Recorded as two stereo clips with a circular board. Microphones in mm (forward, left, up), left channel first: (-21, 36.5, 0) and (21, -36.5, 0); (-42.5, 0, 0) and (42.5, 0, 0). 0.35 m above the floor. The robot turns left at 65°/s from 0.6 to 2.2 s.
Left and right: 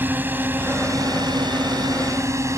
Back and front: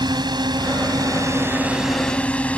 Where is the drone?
5° left; by 2.6 s 105° right.